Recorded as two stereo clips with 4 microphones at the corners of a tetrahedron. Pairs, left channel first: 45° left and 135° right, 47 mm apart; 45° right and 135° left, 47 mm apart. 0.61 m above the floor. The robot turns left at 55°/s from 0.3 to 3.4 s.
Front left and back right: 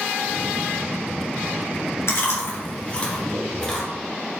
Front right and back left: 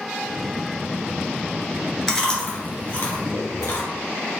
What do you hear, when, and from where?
2.1 s chewing: 35° left, 1.9 m; by 3.8 s 40° right, 1.9 m